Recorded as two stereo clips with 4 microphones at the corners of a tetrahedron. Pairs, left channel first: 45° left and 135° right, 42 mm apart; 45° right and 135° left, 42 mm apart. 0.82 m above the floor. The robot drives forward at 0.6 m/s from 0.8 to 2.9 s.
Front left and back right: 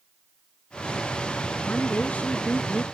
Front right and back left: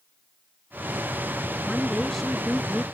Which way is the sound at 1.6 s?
30° left.